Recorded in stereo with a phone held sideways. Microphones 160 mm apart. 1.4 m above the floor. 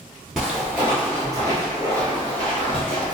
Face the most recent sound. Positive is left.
turn(degrees=-35)  # may be behind; listen again after turning